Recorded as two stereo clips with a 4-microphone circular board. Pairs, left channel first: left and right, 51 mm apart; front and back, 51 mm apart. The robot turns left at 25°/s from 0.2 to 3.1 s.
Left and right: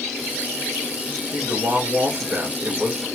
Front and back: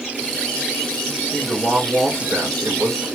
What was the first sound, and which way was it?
A woman speaking, 110° right.